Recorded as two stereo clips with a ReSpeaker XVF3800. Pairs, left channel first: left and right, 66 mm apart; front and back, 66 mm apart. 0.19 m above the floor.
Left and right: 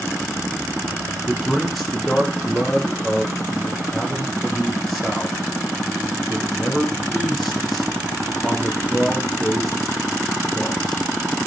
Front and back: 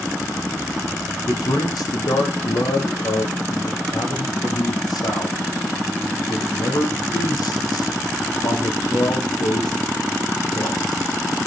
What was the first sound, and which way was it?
A man speaking, straight ahead.